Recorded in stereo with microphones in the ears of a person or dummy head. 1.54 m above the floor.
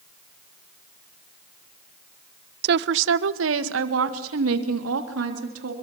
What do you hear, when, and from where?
2.6 s a woman speaking: 65° right (ahead or behind), 0.7 m; by 5.7 s 80° right, 3.5 m